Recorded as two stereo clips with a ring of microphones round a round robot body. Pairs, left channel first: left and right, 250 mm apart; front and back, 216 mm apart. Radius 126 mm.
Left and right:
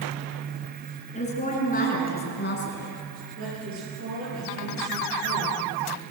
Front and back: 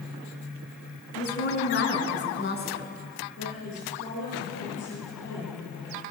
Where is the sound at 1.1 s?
25° left, 6 m; by 2.9 s 45° left, 4.5 m.